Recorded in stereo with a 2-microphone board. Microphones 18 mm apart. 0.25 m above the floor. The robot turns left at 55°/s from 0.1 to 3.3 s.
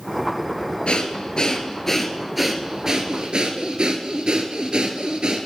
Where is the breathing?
80° left, 0.8 m; by 5.5 s 55° right, 0.8 m.